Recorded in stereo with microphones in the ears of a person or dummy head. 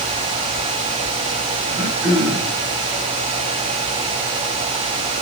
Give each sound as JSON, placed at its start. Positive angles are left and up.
{"t": 1.7, "sound": "throat clearing", "side_deg": -60, "distance_m": 3.0}